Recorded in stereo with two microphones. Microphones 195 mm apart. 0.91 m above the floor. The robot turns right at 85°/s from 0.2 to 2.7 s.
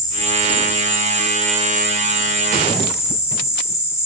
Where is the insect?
160° left, 7 m; by 4.1 s 15° left, 7 m.